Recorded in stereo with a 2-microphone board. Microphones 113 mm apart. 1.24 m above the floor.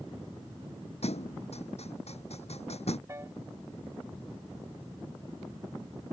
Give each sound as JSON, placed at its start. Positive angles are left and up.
{"t": 1.0, "sound": "a thud", "side_deg": 70}
{"t": 3.1, "sound": "a piano", "side_deg": -25}